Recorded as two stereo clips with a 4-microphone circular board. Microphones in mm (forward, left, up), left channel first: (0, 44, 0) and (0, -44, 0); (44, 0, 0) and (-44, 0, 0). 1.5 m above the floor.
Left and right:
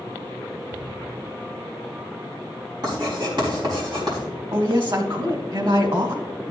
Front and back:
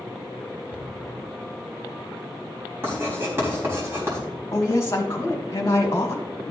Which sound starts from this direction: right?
A cupboard door, at 0.7 s.